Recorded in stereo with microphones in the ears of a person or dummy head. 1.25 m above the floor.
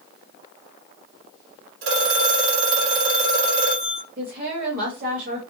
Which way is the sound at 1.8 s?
75° right (ahead or behind).